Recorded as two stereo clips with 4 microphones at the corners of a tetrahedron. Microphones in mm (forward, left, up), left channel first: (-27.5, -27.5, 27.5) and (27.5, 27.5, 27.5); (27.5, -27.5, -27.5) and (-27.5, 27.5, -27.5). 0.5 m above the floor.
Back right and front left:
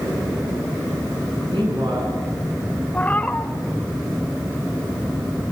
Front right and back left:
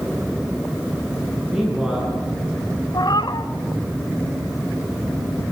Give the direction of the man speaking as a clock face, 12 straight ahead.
10 o'clock.